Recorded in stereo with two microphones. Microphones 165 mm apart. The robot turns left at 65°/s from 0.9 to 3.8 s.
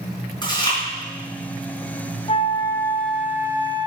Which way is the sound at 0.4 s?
30° left (ahead or behind).